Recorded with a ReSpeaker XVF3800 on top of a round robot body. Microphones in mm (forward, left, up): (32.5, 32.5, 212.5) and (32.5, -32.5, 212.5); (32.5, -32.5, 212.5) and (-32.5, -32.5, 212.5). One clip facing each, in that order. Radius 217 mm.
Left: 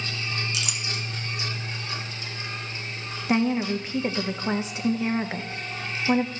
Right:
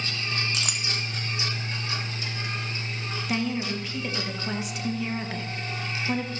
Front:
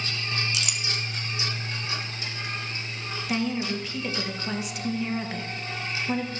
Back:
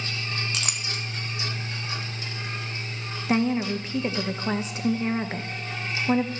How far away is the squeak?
No squeak in this recording.